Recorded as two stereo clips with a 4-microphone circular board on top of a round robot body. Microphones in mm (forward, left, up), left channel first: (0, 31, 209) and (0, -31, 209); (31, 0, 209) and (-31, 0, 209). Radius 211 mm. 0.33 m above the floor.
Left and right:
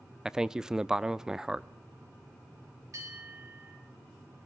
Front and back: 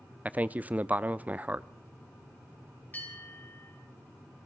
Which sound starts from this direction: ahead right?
A bell, at 2.9 s.